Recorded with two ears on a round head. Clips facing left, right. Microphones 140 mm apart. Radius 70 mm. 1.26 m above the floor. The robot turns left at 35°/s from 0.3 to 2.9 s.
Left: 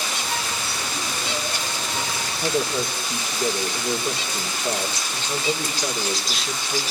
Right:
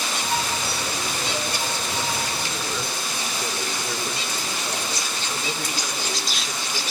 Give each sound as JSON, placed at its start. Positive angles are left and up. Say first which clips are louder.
{"t": 2.4, "sound": "a man speaking", "louder": "left 6 dB", "side_deg": 35, "distance_m": 4.0}